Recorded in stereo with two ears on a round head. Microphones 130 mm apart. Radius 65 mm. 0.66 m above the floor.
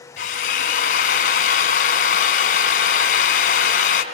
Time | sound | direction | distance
0.2 | a drill | 65° left (ahead or behind) | 3 m